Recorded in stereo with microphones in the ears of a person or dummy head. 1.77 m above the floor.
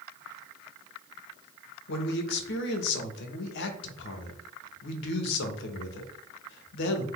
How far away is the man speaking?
About 0.8 m.